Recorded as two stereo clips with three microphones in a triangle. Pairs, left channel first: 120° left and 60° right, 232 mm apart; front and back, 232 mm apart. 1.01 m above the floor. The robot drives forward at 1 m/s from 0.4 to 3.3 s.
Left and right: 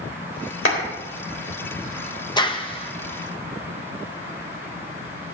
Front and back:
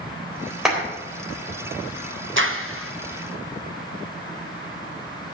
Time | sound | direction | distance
0.7 | a clap | 95° left | 3.5 m
2.4 | a clap | 175° right | 0.8 m